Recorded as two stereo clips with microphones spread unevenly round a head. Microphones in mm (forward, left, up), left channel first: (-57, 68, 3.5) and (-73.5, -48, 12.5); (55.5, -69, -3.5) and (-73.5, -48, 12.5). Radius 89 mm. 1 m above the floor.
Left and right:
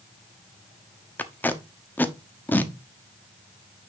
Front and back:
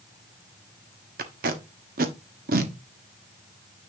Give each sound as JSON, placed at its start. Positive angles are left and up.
{"t": 1.2, "sound": "tape being pulled", "azimuth_deg": 155, "distance_m": 1.1}